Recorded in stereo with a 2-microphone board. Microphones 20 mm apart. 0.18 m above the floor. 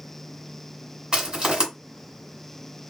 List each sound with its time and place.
1.1 s crushing: 40° right (ahead or behind), 2 m